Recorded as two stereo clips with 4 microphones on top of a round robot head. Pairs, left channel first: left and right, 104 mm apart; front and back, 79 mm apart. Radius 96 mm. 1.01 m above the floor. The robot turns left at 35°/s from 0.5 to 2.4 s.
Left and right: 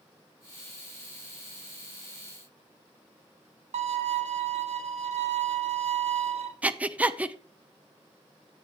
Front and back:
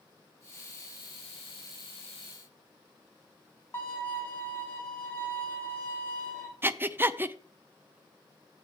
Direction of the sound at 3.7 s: 70° right.